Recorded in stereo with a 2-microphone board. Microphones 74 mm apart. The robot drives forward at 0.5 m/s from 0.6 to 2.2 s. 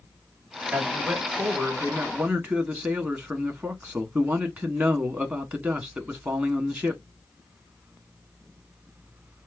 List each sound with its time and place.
0.7 s a man speaking: 15° right (ahead or behind), 2 m; by 7.0 s 25° right (ahead or behind), 1.4 m